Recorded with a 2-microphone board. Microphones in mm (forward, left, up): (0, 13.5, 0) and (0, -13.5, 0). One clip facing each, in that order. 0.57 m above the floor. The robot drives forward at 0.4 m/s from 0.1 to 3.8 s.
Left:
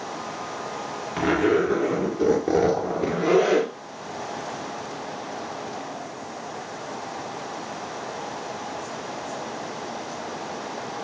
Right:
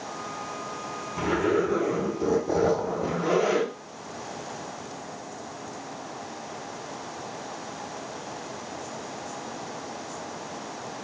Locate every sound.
1.2 s a zipper: 80° left, 2.0 m; by 3.7 s 60° left (ahead or behind), 2.5 m